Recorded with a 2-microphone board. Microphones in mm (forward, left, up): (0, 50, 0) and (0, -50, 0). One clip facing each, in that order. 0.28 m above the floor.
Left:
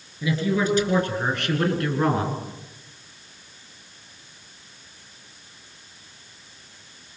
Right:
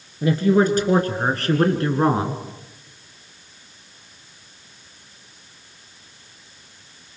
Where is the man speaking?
55° right (ahead or behind), 5 m; by 2.4 s 25° right (ahead or behind), 3.5 m.